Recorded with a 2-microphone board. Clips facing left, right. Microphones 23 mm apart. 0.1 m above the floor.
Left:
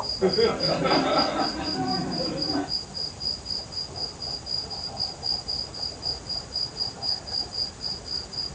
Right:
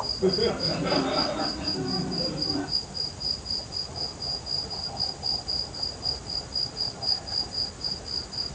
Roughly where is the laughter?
Left.